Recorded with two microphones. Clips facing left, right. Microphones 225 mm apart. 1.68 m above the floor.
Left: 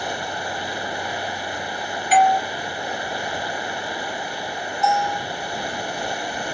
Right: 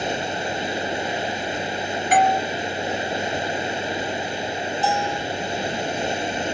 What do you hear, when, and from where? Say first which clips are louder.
0.0 s running water: right 3 dB; 20° right (ahead or behind)
2.1 s a doorbell: left 2 dB; 50° right (ahead or behind)
4.8 s a bell: left 3 dB; 30° right (ahead or behind)